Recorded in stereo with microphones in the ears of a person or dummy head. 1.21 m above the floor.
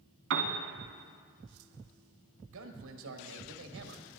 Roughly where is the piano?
Right.